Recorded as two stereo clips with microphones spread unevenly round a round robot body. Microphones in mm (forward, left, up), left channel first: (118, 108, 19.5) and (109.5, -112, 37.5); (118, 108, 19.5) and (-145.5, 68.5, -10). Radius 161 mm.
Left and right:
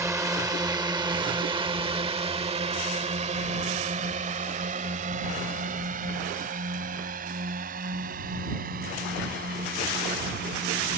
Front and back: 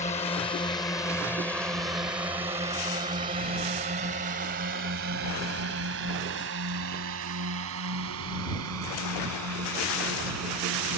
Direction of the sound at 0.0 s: 25° right.